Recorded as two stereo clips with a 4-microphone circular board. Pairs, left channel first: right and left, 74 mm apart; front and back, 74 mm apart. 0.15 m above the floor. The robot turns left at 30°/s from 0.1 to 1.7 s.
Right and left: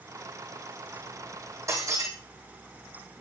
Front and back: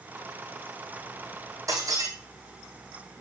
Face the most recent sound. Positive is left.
turn(degrees=135)